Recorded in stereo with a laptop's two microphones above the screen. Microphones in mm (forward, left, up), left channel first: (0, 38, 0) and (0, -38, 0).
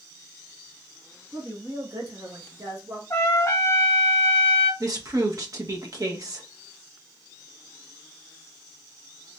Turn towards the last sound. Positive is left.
turn(degrees=-50)  # may be behind; listen again after turning